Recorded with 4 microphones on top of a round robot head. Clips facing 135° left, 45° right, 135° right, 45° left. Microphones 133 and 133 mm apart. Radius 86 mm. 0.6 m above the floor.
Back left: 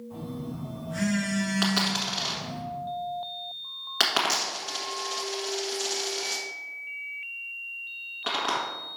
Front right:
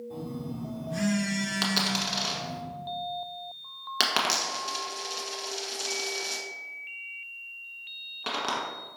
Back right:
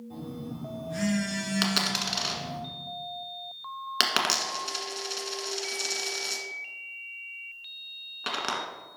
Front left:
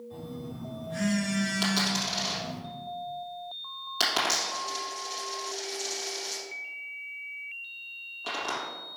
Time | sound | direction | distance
0.1 | a phone buzzing | 95° right | 2 m
1.6 | a dropped coin | 110° right | 1.1 m